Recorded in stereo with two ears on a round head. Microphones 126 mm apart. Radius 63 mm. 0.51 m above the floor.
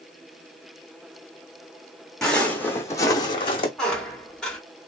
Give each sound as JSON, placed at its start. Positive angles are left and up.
{"t": 2.2, "sound": "footsteps", "side_deg": 5, "distance_m": 1.2}
{"t": 3.8, "sound": "a squeak", "side_deg": 5, "distance_m": 1.2}